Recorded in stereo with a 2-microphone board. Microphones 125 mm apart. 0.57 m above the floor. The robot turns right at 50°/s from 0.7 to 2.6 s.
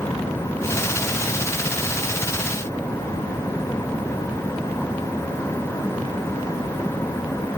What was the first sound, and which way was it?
Only background noise.